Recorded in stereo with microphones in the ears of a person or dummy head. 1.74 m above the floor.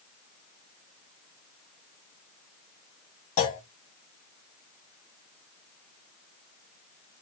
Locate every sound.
3.4 s a clunk: 35° left (ahead or behind), 0.7 m